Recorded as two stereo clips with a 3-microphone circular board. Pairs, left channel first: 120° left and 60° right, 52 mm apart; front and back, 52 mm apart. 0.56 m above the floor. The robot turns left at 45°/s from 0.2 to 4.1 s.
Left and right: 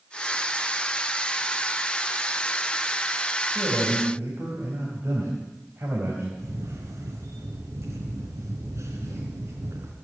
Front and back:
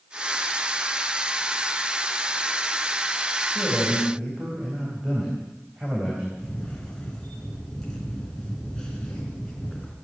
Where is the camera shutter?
75° right, 3.5 m.